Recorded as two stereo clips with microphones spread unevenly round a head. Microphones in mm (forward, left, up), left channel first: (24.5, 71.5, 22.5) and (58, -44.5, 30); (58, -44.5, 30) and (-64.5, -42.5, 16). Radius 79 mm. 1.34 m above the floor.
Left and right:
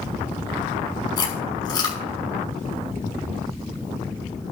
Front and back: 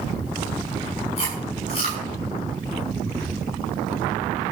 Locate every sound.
1.2 s chewing: 50° left, 6.5 m